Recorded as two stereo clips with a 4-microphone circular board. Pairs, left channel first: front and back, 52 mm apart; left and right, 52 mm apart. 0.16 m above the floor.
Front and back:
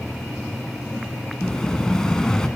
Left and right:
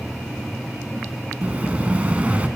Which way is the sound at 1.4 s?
65° right.